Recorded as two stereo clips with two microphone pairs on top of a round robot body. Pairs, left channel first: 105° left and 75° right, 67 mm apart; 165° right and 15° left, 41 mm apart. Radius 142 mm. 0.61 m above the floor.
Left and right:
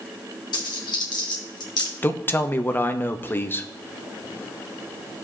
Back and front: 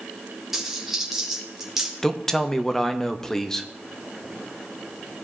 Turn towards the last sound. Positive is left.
turn(degrees=140)